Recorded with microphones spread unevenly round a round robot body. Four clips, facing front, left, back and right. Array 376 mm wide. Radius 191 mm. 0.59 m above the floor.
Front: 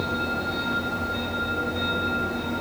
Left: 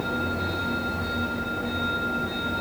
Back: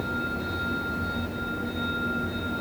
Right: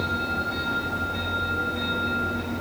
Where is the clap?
No clap in this recording.